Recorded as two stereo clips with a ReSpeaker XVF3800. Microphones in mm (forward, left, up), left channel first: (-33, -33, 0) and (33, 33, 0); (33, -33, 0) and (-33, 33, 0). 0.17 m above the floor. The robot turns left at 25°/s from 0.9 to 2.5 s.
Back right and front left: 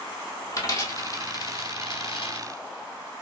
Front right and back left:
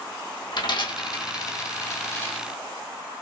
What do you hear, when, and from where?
0.5 s a dropped coin: 80° right, 1.2 m; by 2.5 s 120° right, 1.2 m